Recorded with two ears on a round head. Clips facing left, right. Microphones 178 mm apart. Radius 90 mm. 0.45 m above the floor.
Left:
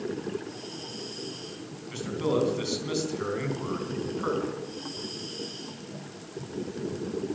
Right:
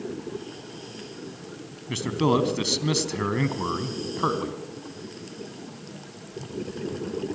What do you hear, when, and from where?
1.9 s a man speaking: 75° right (ahead or behind), 3.5 m